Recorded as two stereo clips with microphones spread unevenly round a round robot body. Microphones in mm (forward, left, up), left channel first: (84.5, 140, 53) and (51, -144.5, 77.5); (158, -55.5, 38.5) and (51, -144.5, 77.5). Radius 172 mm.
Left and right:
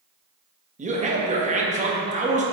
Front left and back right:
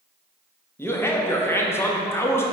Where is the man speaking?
30° right, 1.2 m.